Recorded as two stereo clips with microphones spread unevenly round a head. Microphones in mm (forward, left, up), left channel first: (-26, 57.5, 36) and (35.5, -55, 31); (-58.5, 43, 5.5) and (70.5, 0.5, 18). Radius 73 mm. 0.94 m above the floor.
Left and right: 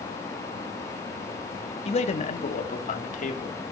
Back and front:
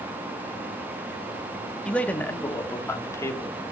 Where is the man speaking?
80° left, 2 m; by 3.6 s 95° left, 3 m.